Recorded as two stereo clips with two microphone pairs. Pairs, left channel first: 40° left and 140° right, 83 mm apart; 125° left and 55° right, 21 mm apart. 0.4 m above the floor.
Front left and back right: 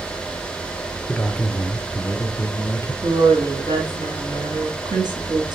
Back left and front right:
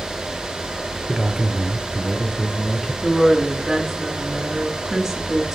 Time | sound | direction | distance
1.1 | a man speaking | 25° right | 0.9 m
3.0 | a woman speaking | 125° right | 3 m